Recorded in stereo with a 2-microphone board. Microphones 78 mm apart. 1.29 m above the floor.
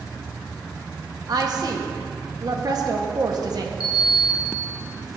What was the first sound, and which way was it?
A woman speaking, 55° right (ahead or behind).